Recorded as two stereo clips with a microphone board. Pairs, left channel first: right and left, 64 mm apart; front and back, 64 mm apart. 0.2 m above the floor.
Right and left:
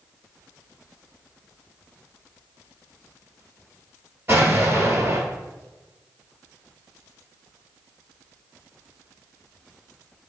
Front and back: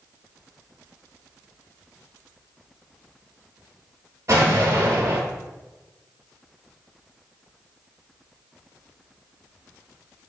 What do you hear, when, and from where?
4.3 s an explosion: 140° left, 0.9 m